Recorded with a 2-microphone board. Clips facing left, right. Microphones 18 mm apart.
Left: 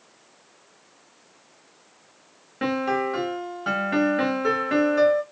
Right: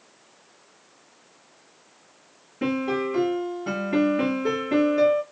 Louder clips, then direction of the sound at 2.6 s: Left 1 dB; 45° left (ahead or behind).